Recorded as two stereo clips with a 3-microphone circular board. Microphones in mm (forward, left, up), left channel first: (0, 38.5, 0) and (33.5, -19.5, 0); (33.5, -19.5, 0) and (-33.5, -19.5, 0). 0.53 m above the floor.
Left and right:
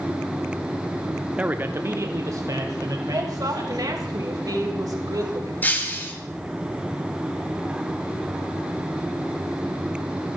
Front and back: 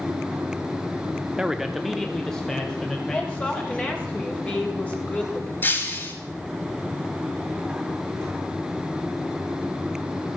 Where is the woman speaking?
70° right, 3 m.